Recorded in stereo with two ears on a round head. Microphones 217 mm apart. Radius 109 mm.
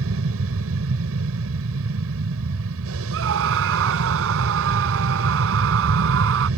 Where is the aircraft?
60° right (ahead or behind).